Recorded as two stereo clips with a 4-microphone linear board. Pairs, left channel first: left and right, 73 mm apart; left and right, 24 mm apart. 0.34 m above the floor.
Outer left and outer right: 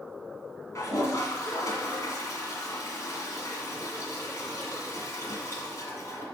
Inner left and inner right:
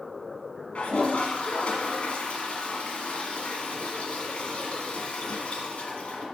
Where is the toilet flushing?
45° left (ahead or behind), 1.7 m.